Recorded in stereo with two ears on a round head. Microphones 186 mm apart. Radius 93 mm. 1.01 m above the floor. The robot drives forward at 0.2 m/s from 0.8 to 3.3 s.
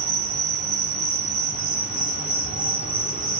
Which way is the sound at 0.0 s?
50° right (ahead or behind).